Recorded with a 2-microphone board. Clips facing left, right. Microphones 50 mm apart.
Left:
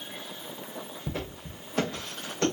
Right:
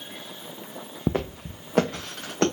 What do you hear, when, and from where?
1.1 s footsteps: 80° right, 0.9 m; by 2.5 s 70° right (ahead or behind), 2.0 m